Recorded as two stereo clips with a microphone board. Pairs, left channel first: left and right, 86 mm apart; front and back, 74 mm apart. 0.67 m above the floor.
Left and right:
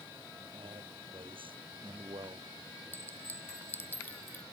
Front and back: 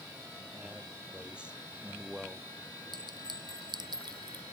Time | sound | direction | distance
0.5 | a man speaking | 105° right | ?
2.9 | a clink | 160° left | ?